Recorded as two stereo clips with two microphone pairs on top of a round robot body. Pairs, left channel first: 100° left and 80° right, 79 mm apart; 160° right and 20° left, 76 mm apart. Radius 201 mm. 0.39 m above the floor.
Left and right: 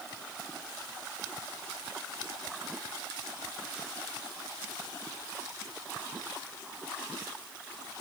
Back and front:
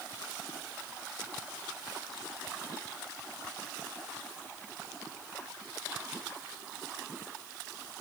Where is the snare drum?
I don't hear a snare drum.